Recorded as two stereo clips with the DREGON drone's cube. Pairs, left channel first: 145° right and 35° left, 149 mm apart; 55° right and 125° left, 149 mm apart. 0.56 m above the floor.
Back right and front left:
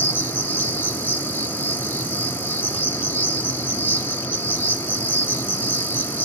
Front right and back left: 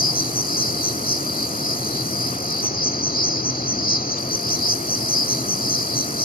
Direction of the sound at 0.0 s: 70° right.